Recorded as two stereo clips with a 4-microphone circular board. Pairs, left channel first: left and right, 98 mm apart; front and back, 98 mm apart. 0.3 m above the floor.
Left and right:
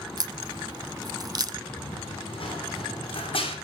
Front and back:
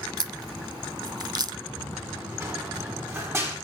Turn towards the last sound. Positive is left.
turn(degrees=115)